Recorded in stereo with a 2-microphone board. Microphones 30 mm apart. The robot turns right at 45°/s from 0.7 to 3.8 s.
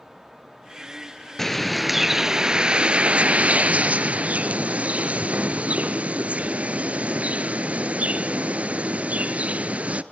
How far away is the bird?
About 1.0 m.